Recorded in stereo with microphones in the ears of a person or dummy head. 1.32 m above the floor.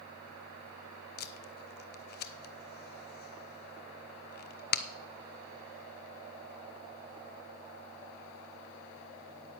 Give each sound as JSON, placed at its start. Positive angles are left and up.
{"t": 1.2, "sound": "tape being pulled", "side_deg": 50, "distance_m": 0.7}